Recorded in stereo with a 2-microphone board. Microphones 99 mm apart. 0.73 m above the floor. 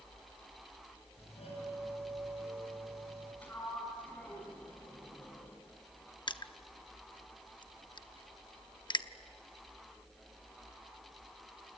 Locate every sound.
1.2 s a doorbell: 80° left, 7.5 m
3.4 s a sliding door: 15° left (ahead or behind), 5 m
6.3 s crushing: 45° left (ahead or behind), 0.7 m